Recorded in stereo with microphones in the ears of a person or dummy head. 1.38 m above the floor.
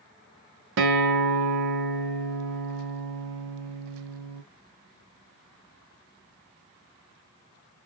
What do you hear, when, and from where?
0.8 s a guitar: 70° right (ahead or behind), 1.1 m